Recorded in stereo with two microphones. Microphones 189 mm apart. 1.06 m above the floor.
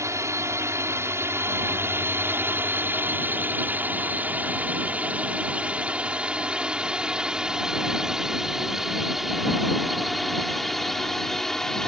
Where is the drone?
15° right (ahead or behind); by 11.9 s centre (ahead or behind).